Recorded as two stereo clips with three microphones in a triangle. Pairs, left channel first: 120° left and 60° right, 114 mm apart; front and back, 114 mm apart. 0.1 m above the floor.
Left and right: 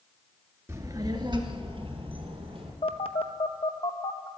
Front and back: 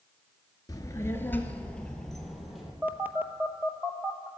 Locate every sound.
0.7 s a child speaking: 20° right, 1.1 m; by 2.7 s 95° right, 2.5 m
2.8 s a phone buzzing: 110° left, 0.7 m